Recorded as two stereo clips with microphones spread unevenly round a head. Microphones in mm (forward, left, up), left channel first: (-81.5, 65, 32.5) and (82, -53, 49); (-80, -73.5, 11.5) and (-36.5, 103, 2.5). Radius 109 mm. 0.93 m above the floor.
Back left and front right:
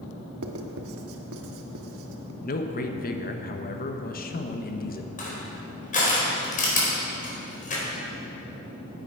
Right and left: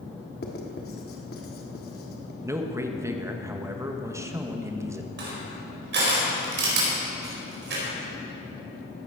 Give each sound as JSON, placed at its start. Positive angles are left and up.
{"t": 0.4, "sound": "writing", "azimuth_deg": -55, "distance_m": 1.2}
{"t": 2.4, "sound": "a man speaking", "azimuth_deg": 145, "distance_m": 1.3}
{"t": 5.2, "sound": "crushing", "azimuth_deg": 95, "distance_m": 4.5}